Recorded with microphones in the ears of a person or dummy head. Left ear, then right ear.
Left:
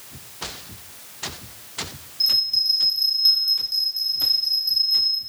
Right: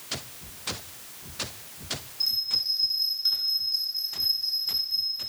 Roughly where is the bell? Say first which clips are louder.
Left 7 dB; left.